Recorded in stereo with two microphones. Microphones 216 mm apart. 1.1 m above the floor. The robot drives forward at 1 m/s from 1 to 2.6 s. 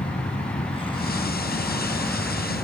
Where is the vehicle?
40° left (ahead or behind); by 2.6 s centre (ahead or behind).